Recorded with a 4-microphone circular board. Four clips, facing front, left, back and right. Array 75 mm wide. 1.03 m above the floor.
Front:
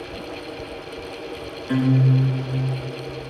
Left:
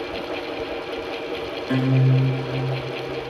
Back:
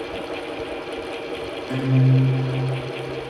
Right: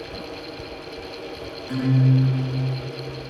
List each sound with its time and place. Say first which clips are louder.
1.7 s a guitar: even, front 2 dB; 55° left, 4.5 m